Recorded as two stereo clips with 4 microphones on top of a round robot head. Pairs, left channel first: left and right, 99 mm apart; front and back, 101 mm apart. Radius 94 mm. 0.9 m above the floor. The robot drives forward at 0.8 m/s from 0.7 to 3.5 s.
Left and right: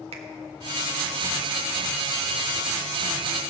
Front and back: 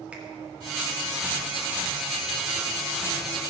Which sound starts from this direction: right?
A finger snap, at 0.1 s.